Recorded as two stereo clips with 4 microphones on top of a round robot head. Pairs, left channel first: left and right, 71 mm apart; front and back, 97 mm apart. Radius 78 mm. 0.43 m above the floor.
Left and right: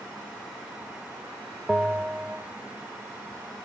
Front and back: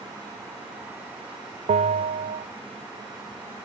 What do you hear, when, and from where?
1.7 s a bell: 170° right, 0.6 m